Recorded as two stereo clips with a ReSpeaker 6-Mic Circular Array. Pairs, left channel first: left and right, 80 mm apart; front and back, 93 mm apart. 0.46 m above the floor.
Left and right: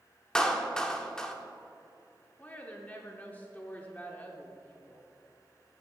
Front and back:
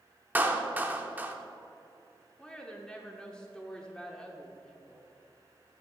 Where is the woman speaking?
65° left, 0.9 m.